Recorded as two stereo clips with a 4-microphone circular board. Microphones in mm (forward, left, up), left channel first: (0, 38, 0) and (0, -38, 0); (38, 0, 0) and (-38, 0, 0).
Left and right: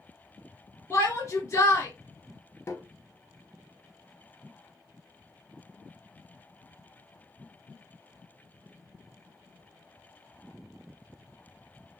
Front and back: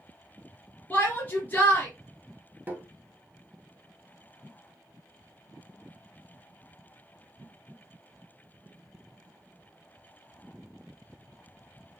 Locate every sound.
0.9 s a shout: 45° left, 2.5 m
2.7 s tapping: 125° left, 0.8 m